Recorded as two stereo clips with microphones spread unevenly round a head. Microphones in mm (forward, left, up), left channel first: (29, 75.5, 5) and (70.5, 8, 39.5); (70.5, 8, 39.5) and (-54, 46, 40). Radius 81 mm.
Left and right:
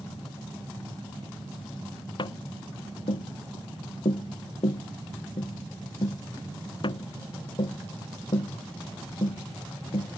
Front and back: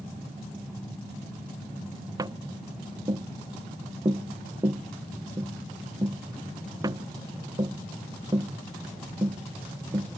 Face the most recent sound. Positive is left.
turn(degrees=100)